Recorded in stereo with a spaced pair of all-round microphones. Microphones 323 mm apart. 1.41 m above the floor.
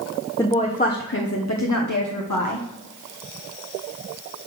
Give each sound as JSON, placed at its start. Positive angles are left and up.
{"t": 0.4, "sound": "a woman speaking", "side_deg": 10, "distance_m": 1.0}